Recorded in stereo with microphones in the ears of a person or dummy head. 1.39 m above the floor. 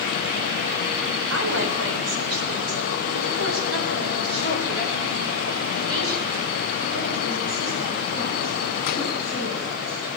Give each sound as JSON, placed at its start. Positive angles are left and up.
{"t": 1.3, "sound": "a woman speaking", "side_deg": -75, "distance_m": 7.0}